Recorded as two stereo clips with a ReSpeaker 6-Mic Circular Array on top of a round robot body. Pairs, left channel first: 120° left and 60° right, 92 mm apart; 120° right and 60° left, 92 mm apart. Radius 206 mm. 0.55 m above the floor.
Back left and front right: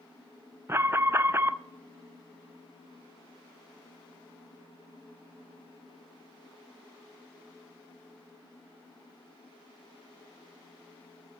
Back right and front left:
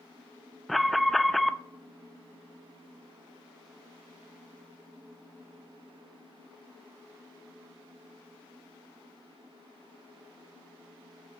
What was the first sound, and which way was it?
An alarm, 30° right.